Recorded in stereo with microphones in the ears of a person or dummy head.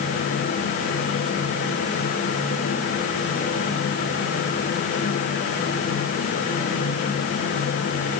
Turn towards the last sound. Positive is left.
No sound to turn to.